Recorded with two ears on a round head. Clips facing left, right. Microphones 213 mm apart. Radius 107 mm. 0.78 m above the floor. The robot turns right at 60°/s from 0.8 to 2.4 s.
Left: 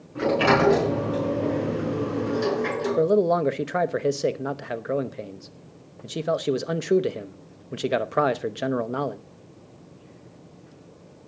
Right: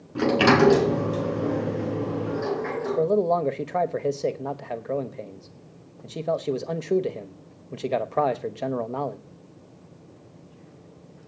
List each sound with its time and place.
0.1 s a sliding door: 50° right (ahead or behind), 5.5 m; by 3.0 s 45° left (ahead or behind), 5.5 m
3.0 s a man speaking: 15° left (ahead or behind), 0.9 m